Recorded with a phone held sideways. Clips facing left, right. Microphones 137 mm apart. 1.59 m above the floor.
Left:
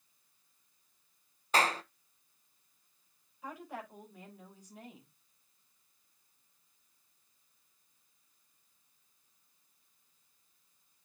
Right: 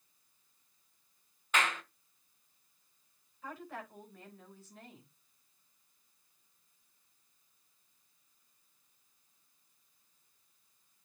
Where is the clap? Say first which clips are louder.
Left 4 dB; 35° left (ahead or behind), 0.8 m.